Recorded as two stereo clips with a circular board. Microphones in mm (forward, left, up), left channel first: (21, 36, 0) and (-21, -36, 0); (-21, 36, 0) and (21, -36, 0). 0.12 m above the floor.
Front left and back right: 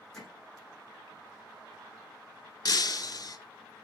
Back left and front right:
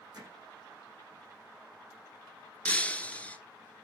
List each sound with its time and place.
0.1 s hammering: 25° right, 5 m
2.6 s breaking glass: 50° left, 0.9 m